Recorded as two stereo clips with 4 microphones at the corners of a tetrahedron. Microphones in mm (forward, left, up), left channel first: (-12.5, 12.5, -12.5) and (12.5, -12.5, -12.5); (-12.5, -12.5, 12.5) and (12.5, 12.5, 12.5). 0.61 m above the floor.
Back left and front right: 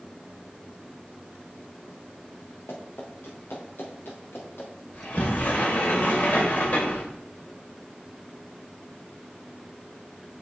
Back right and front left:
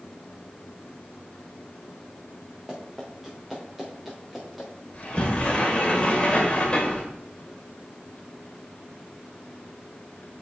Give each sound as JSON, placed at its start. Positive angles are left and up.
{"t": 2.7, "sound": "running footsteps", "azimuth_deg": 125, "distance_m": 3.5}
{"t": 4.9, "sound": "a sliding door", "azimuth_deg": 165, "distance_m": 2.5}